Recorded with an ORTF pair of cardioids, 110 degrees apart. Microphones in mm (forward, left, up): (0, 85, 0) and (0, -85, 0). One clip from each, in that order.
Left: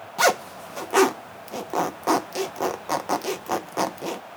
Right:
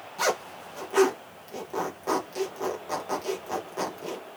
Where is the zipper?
45° left, 0.6 m.